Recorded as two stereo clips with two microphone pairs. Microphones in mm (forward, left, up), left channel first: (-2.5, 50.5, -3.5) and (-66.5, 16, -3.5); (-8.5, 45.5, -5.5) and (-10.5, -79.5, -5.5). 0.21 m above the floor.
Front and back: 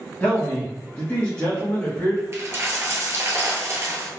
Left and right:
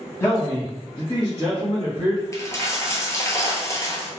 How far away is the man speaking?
About 1.1 m.